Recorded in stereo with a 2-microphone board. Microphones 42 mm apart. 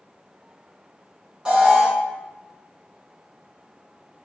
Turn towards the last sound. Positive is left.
turn(degrees=-20)  # may be behind; listen again after turning